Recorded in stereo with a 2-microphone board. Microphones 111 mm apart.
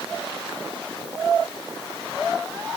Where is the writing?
I don't hear writing.